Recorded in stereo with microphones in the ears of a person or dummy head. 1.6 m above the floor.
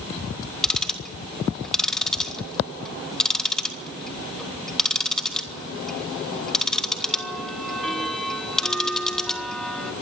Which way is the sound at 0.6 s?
5° left (ahead or behind).